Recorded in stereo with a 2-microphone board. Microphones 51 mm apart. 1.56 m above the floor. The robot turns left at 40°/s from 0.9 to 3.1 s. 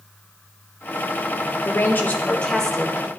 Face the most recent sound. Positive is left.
turn(degrees=-10)